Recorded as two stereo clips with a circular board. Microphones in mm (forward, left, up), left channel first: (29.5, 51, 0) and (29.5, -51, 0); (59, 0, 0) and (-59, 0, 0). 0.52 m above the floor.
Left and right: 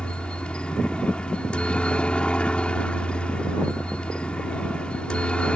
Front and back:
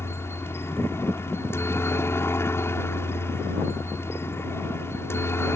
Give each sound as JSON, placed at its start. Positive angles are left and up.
{"t": 0.0, "sound": "a helicopter", "azimuth_deg": 25}